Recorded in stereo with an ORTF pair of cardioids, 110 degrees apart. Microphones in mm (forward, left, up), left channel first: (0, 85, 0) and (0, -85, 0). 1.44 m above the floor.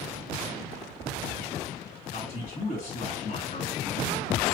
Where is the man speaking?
45° left, 2.5 m.